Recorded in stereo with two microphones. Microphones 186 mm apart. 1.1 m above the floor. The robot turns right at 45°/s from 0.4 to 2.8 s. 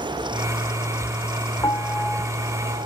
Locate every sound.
1.6 s a piano: 155° left; by 2.9 s 150° right